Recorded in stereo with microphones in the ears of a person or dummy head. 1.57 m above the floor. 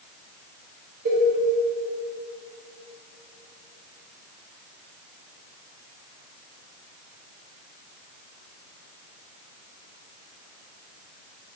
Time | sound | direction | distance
1.1 | a cowbell | 50° right (ahead or behind) | 0.8 m